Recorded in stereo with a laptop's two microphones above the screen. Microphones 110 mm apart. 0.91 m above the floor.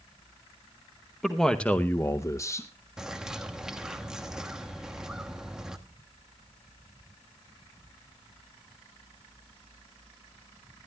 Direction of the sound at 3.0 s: 5° right (ahead or behind).